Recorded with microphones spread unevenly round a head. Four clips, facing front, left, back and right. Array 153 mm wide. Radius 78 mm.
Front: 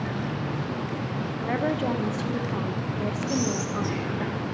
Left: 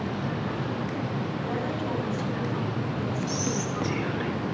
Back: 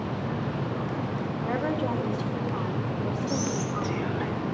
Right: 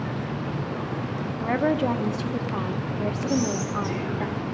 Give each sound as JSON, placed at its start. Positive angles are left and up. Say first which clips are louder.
{"t": 1.4, "sound": "a woman speaking", "louder": "right 7 dB, front 2 dB", "azimuth_deg": -55, "distance_m": 1.2}
{"t": 3.3, "sound": "whispering", "louder": "right 4 dB, front 2 dB", "azimuth_deg": 90, "distance_m": 2.0}